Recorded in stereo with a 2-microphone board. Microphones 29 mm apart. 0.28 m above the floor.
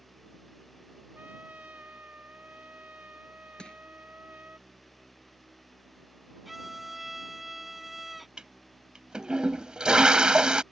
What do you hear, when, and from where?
1.1 s a trumpet: 65° right (ahead or behind)
3.6 s crushing: 30° left (ahead or behind)
6.5 s a violin: 5° right (ahead or behind)
8.4 s a toilet flushing: 30° right (ahead or behind)